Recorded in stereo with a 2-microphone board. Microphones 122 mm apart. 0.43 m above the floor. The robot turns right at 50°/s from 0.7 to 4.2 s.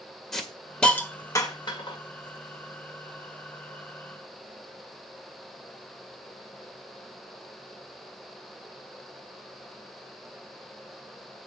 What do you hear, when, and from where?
0.3 s a hiss: 5° left (ahead or behind), 1.5 m; by 2.0 s 45° left (ahead or behind), 1.5 m